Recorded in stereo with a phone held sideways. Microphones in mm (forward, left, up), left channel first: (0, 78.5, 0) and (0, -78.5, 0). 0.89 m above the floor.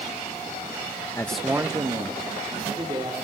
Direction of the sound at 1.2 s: 20° left (ahead or behind).